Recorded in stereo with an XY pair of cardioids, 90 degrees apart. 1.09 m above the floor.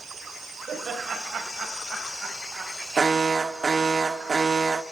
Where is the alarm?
35° right, 0.9 m.